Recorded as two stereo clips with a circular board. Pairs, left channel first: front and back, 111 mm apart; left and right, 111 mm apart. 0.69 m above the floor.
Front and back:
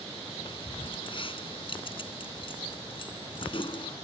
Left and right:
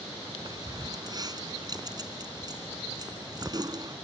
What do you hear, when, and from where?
0.5 s keys jangling: 40° right